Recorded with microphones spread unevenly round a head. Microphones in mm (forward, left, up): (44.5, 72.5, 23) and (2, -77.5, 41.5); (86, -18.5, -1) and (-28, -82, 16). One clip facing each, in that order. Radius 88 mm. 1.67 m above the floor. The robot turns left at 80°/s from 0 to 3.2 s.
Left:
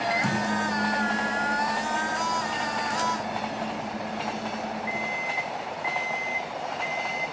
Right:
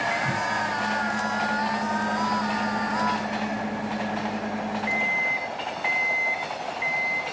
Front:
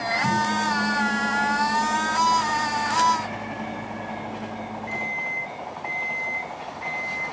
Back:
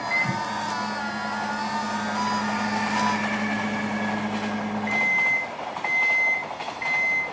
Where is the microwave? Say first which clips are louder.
Left 1 dB, front 9 dB; 100° left, 2.5 m; by 7.2 s 145° right, 2.5 m.